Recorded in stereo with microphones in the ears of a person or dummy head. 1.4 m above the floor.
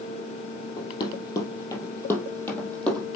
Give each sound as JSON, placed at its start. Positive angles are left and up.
{"t": 0.8, "sound": "running footsteps", "side_deg": 30, "distance_m": 2.5}